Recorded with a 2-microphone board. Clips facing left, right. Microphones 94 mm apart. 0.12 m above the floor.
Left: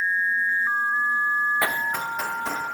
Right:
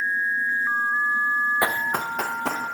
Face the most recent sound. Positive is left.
turn(degrees=-80)